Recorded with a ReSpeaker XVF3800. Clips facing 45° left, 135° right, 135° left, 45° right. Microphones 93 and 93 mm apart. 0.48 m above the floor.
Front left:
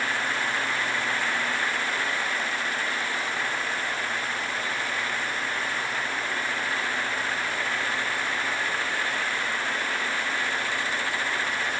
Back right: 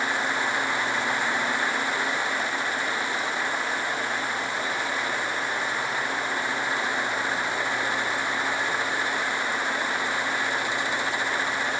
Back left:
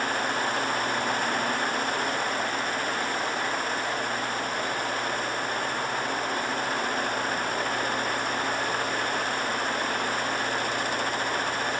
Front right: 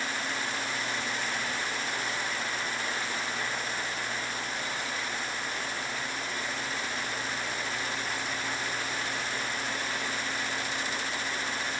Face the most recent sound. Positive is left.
No sound to turn to.